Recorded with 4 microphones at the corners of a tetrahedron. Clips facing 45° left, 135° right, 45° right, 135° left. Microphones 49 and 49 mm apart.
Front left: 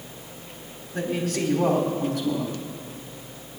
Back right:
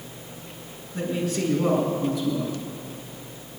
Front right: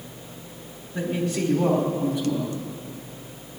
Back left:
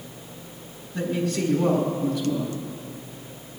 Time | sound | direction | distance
0.9 | a man speaking | 15° left | 4 m